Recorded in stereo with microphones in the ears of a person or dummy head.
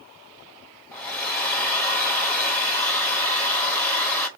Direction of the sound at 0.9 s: 10° left (ahead or behind).